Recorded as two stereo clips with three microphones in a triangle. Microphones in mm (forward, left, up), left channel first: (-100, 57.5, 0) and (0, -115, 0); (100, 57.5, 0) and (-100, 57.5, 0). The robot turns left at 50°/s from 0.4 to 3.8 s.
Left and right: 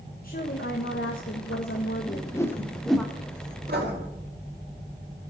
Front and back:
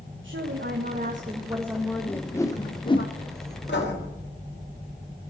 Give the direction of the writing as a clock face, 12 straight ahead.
1 o'clock.